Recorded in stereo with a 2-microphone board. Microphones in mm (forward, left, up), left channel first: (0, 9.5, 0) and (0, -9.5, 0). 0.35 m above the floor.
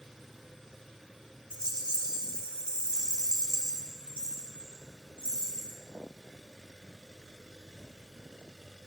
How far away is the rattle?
About 2 m.